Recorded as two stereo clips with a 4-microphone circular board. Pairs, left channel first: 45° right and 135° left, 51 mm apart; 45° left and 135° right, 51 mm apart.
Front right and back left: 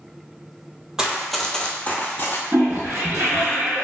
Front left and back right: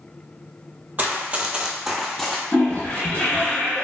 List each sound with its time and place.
1.0 s running footsteps: 160° right, 0.6 m; by 2.4 s 30° right, 0.7 m
2.5 s a toilet flushing: 100° left, 1.4 m